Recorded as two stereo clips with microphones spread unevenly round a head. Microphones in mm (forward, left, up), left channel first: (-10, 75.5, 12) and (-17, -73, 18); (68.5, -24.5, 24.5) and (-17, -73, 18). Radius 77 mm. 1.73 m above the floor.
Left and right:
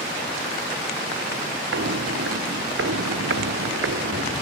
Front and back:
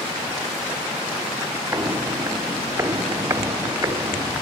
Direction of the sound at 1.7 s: 85° right.